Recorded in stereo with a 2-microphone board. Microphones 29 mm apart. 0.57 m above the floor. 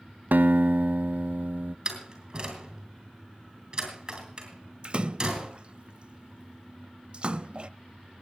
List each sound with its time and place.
0.3 s a guitar: 80° right, 1.0 m
1.9 s a door slam: 25° right (ahead or behind), 5 m
4.8 s a splash: 35° right (ahead or behind), 0.5 m